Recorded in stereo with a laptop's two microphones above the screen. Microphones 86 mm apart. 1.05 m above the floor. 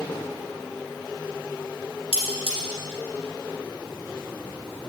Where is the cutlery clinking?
85° left, 1.8 m.